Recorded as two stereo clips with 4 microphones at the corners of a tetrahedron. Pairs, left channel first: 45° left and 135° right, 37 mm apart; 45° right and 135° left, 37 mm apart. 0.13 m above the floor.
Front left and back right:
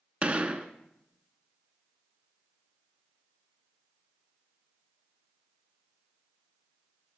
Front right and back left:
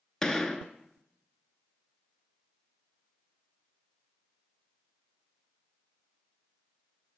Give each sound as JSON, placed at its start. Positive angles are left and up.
{"t": 0.2, "sound": "a gunshot", "azimuth_deg": -115, "distance_m": 0.6}